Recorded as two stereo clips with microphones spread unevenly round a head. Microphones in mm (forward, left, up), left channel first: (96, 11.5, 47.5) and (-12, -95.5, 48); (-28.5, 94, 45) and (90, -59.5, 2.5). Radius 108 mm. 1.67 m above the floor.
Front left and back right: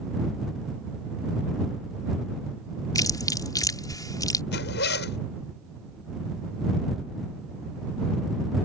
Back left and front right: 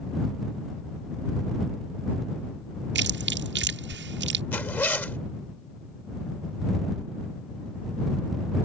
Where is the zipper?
50° left.